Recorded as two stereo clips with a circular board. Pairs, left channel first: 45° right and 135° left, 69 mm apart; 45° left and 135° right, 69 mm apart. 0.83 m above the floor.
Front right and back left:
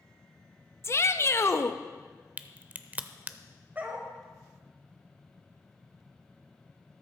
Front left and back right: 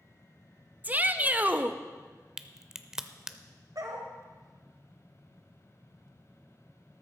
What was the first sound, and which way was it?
A shout, 80° right.